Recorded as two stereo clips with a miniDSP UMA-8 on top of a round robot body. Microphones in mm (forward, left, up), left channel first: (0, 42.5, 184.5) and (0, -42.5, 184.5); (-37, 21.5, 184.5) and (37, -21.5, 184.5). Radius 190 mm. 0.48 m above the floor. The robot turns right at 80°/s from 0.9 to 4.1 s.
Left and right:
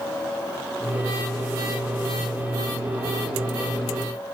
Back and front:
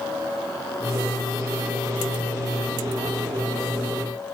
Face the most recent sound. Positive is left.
No sound to turn to.